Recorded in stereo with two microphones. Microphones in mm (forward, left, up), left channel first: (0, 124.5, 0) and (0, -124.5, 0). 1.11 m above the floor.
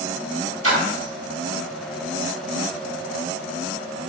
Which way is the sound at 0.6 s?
65° right (ahead or behind).